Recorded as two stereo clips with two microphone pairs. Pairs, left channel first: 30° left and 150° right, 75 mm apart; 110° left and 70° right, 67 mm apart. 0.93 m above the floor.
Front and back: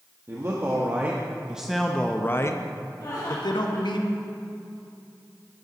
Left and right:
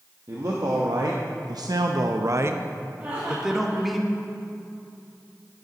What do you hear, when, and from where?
0.3 s a man speaking: 100° right, 1.2 m; by 4.0 s 25° left, 1.2 m
3.0 s laughter: 5° right, 2 m